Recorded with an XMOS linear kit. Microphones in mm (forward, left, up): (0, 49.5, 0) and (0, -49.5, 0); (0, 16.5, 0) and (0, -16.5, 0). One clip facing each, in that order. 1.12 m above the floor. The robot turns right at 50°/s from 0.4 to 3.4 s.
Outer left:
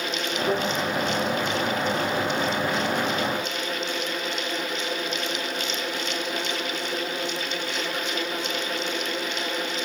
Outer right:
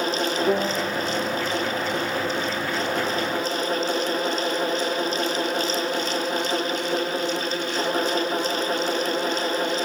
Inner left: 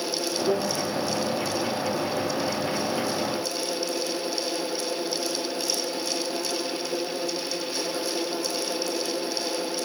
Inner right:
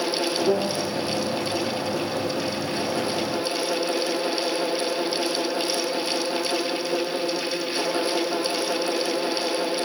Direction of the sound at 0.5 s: 20° right (ahead or behind).